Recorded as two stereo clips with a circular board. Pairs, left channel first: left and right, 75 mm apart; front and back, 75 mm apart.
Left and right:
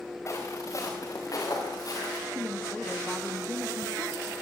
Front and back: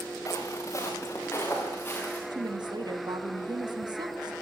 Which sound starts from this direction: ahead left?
Footsteps, at 0.3 s.